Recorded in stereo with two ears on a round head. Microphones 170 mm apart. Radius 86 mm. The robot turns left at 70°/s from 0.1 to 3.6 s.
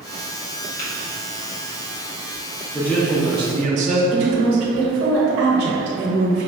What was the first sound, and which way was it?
Tapping, 40° left (ahead or behind).